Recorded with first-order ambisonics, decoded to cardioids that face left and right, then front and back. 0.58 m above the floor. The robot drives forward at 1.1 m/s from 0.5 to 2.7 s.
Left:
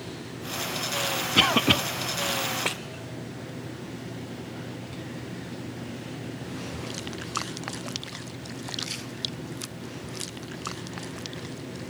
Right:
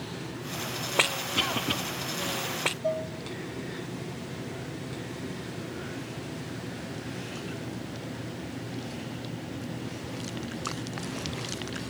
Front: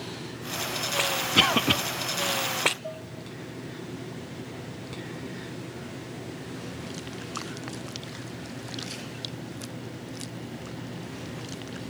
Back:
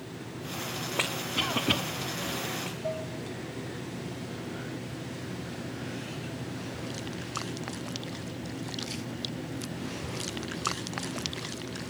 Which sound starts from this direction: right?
Dishes clattering, at 2.8 s.